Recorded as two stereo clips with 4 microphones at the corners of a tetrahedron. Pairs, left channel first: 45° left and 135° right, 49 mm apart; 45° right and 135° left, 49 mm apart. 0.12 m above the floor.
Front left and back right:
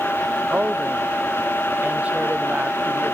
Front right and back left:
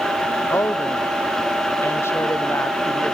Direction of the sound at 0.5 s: 70° right.